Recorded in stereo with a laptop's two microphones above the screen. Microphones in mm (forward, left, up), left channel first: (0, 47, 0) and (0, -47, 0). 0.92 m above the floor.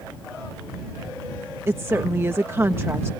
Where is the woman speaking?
25° right (ahead or behind).